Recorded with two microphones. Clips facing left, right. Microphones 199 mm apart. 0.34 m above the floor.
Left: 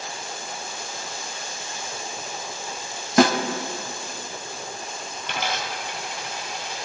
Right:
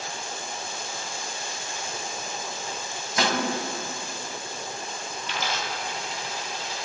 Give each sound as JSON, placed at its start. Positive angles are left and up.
{"t": 3.2, "sound": "a snare drum", "side_deg": 75, "distance_m": 1.1}
{"t": 5.2, "sound": "a dropped coin", "side_deg": 65, "distance_m": 2.0}